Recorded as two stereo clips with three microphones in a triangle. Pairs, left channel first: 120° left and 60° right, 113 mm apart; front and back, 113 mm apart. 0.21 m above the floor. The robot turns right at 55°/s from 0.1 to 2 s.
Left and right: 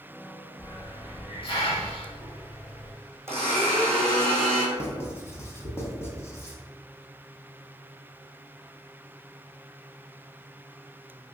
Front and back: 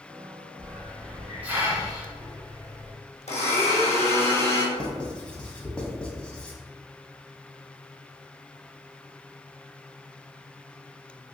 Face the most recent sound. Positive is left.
turn(degrees=75)